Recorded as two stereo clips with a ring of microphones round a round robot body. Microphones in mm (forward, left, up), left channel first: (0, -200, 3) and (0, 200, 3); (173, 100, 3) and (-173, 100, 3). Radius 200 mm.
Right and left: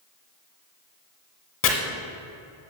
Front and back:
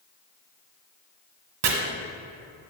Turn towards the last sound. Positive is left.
turn(degrees=-145)